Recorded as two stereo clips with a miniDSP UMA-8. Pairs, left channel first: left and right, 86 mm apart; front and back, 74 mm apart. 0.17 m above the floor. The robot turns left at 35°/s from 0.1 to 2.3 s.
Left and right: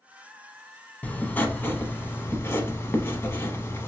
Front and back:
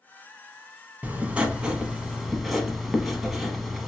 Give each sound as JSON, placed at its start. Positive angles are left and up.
{"t": 1.0, "sound": "writing", "azimuth_deg": 140, "distance_m": 0.6}